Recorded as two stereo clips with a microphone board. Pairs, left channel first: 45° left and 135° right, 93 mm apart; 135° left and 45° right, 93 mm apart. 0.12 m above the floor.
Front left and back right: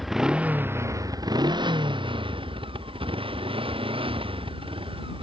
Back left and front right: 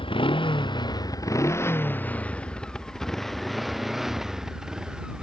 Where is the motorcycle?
135° left; by 5.2 s 125° right.